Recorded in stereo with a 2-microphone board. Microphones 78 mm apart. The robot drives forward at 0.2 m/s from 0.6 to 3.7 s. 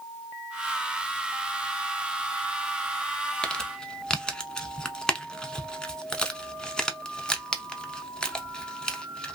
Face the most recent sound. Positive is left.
turn(degrees=10)  # may be behind; listen again after turning